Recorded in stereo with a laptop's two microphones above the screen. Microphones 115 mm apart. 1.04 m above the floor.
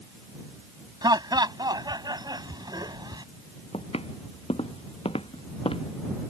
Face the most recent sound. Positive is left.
turn(degrees=55)  # may be behind; listen again after turning